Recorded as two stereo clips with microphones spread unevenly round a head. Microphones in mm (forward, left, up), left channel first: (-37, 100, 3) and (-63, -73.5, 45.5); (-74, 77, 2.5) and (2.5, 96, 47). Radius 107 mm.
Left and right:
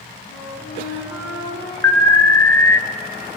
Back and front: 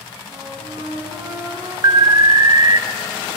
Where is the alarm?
65° left, 0.8 m.